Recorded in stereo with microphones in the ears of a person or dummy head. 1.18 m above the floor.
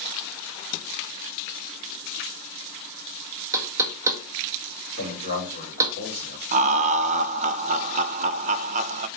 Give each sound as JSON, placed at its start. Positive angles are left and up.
{"t": 3.5, "sound": "knocking", "side_deg": -15, "distance_m": 1.3}
{"t": 5.0, "sound": "a man speaking", "side_deg": -35, "distance_m": 4.0}
{"t": 6.5, "sound": "laughter", "side_deg": -35, "distance_m": 0.6}